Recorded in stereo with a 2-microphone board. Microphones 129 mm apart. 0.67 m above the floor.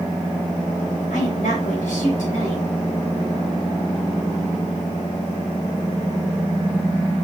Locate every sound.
1.1 s a woman speaking: 75° left (ahead or behind), 3.5 m